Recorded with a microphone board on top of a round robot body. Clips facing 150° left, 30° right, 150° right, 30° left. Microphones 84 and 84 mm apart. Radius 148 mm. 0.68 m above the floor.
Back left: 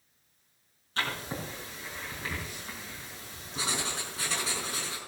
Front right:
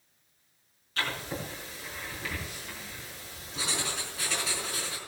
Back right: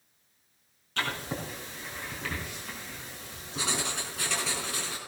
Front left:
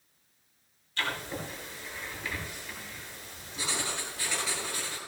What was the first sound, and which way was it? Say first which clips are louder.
Writing: even, back right 1 dB; 155° right.